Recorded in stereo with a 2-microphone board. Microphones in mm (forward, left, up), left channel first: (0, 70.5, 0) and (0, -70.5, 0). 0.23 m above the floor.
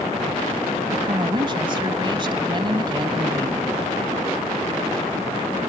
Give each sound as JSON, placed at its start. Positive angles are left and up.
{"t": 0.9, "sound": "a woman speaking", "side_deg": -35}